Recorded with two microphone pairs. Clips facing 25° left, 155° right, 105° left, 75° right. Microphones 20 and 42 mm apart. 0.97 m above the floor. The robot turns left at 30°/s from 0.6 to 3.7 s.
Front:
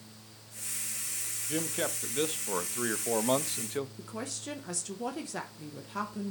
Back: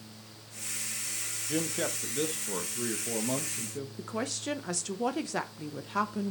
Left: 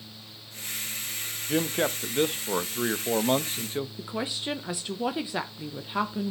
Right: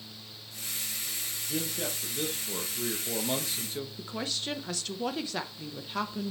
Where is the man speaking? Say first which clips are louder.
Back 1 dB, left 9 dB; 115° left, 0.6 m; by 3.9 s 50° left, 0.6 m.